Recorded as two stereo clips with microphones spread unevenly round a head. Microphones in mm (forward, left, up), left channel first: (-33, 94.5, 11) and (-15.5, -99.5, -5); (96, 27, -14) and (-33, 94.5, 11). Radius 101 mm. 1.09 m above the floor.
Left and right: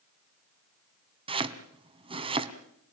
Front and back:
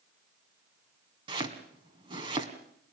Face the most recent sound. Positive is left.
turn(degrees=-150)